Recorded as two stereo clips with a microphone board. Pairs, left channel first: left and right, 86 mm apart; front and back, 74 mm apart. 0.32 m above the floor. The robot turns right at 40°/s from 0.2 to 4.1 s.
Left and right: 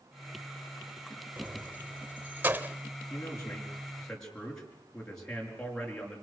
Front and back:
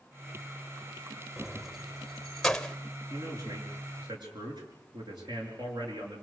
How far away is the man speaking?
About 5.5 m.